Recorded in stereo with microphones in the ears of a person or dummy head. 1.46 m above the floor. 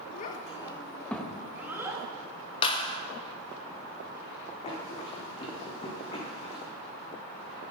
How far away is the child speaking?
About 1.3 m.